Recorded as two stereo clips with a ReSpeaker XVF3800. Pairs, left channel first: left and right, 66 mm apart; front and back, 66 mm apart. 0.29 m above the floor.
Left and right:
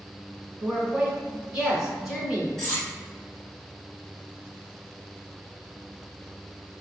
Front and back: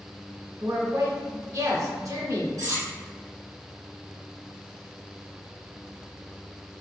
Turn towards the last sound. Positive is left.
turn(degrees=170)